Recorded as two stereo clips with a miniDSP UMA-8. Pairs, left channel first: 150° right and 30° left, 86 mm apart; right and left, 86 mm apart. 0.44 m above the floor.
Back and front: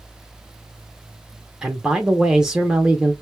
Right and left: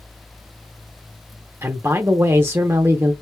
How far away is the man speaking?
About 0.8 m.